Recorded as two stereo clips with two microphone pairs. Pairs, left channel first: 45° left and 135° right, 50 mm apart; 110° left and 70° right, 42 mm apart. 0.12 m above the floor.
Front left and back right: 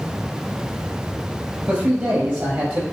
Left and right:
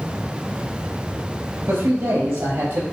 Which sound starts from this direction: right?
A man speaking, at 1.7 s.